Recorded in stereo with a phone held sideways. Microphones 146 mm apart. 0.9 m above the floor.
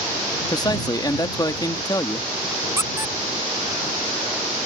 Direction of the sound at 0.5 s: 25° left (ahead or behind).